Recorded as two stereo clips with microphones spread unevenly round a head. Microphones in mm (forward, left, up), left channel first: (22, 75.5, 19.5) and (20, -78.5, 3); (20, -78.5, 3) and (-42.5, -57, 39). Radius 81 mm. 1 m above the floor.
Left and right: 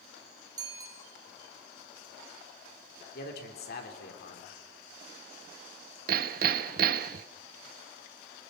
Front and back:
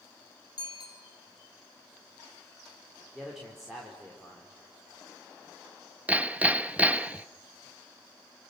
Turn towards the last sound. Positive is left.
turn(degrees=-130)